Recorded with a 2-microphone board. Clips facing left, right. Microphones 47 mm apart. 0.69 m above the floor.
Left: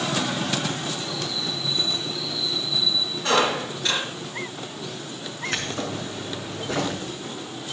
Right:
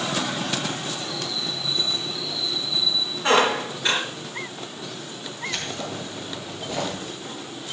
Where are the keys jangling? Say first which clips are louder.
Left 2 dB; 65° left (ahead or behind), 5.5 m.